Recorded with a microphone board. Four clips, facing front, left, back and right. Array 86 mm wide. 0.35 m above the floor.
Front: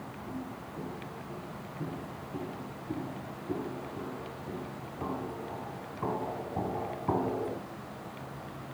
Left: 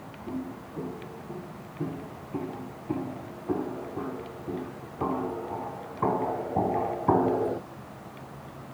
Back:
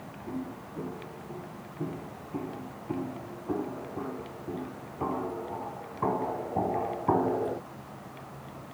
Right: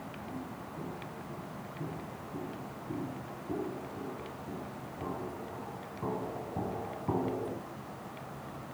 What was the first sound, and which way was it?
Footsteps, 115° left.